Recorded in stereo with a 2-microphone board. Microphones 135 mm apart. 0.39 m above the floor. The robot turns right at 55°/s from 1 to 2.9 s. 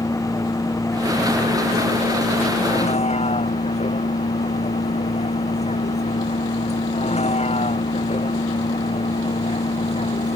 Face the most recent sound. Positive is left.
turn(degrees=125)